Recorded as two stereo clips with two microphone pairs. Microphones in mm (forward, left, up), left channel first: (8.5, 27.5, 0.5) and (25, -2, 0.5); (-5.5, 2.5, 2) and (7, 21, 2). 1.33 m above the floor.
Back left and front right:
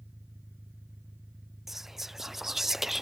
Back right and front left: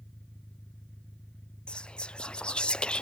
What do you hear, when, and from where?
0.0 s an engine running: 80° right
1.7 s whispering: 135° right